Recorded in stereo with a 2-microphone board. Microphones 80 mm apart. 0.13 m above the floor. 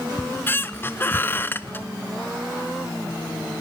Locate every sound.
0.2 s a squeak: 25° left (ahead or behind), 0.8 m